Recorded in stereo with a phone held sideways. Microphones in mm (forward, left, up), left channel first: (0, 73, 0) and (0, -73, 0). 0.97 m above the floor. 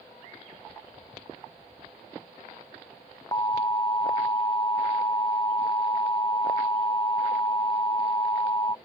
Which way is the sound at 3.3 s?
25° left (ahead or behind).